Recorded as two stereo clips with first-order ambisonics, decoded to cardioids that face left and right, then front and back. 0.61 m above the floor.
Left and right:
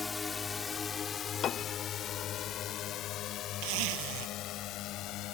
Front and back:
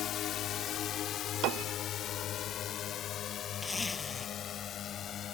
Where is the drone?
20° left; by 5.3 s 55° left.